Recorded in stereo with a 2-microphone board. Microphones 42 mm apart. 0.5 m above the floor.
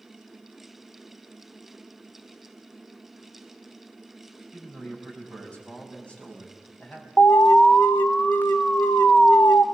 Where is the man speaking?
30° left (ahead or behind), 4.5 m.